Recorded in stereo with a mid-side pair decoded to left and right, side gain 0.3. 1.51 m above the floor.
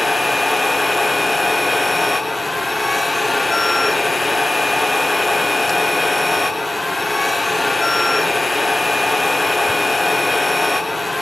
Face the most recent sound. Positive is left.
turn(degrees=20)